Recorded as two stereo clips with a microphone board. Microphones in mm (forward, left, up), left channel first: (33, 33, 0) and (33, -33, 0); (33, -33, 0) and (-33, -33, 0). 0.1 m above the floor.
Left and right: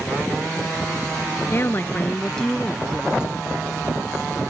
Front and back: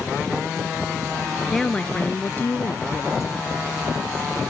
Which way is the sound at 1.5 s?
85° left.